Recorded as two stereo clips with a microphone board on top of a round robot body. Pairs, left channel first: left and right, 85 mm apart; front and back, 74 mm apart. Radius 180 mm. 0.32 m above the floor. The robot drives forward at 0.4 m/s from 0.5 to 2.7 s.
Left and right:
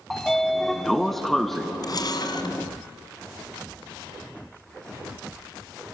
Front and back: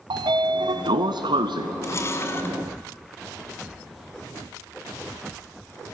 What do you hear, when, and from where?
0.1 s a sliding door: 175° left, 0.7 m; by 1.7 s straight behind, 1.2 m
1.8 s a camera shutter: 50° left, 1.5 m; by 2.6 s 60° left, 1.4 m